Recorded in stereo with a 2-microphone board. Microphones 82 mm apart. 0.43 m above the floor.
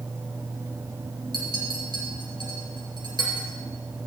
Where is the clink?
60° right (ahead or behind), 4.5 m.